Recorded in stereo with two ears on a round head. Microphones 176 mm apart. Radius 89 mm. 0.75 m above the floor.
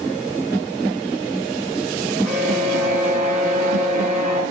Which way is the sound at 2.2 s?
Centre (ahead or behind).